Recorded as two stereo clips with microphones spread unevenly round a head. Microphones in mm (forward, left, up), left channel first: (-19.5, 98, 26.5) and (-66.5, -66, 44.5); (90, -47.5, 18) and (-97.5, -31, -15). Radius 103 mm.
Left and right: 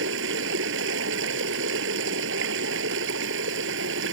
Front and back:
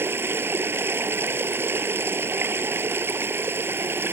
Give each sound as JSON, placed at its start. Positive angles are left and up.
{"t": 0.0, "sound": "running water", "azimuth_deg": -105}